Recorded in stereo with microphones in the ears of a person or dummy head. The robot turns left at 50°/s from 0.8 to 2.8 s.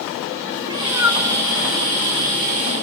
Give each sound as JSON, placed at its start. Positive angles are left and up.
{"t": 0.6, "sound": "a cat meowing", "side_deg": -15, "distance_m": 1.2}